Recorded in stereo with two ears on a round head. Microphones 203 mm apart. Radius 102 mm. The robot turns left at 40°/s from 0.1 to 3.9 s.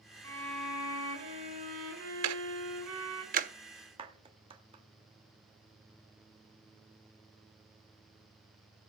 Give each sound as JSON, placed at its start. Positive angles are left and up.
{"t": 0.2, "sound": "a violin", "azimuth_deg": 15, "distance_m": 4.0}
{"t": 2.2, "sound": "ticking", "side_deg": -80, "distance_m": 0.7}
{"t": 4.0, "sound": "a clap", "side_deg": -25, "distance_m": 1.1}